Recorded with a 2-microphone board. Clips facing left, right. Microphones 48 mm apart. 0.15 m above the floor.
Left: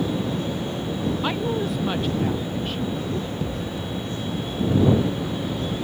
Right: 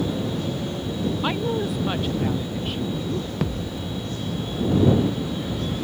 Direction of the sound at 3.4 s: 90° right.